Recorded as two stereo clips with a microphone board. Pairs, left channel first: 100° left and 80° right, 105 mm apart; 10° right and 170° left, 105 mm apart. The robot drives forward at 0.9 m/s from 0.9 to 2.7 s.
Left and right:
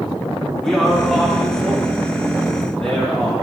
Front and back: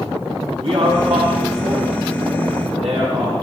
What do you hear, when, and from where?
0.6 s a man speaking: 170° right, 4 m; by 3.3 s 175° right, 5.5 m